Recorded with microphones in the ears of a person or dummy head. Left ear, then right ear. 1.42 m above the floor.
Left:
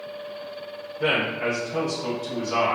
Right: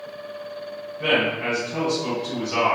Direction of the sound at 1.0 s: 70° left (ahead or behind).